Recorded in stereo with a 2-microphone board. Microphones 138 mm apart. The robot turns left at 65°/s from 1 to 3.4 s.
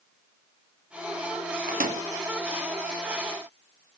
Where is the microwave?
75° right (ahead or behind), 1.1 m; by 2.0 s 80° right, 1.1 m.